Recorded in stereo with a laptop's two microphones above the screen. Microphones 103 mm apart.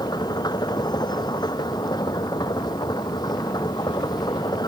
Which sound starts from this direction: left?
A machine running, at 0.0 s.